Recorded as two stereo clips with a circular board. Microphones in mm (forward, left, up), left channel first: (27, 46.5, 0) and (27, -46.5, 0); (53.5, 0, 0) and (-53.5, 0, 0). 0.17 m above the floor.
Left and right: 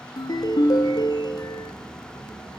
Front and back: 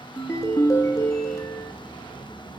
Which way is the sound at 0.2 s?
55° left.